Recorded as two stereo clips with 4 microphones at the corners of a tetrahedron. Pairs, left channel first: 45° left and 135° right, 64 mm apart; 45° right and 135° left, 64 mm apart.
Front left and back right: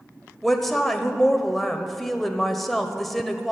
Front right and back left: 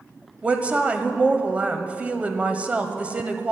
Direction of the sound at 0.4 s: 125° left.